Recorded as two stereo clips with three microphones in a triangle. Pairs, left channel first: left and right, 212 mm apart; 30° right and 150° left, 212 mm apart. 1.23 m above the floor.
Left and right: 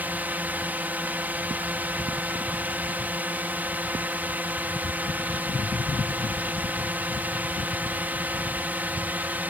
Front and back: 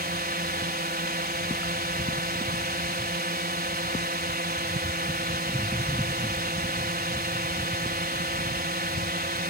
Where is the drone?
170° right.